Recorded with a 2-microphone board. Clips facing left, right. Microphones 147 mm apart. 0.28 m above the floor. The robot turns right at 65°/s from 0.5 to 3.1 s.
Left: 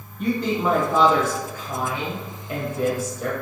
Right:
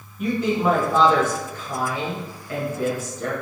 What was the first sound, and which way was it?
A woman speaking, 5° right (ahead or behind).